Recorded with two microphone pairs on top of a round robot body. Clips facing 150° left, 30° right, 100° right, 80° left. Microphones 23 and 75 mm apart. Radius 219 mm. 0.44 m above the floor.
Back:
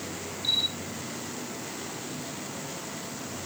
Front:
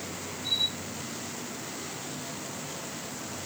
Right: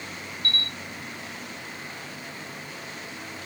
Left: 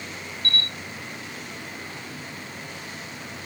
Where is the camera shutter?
140° left, 5 m.